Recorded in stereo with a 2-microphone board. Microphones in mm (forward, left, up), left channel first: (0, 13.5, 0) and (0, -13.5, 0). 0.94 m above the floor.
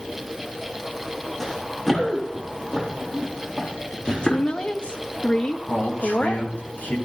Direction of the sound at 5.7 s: 80° left.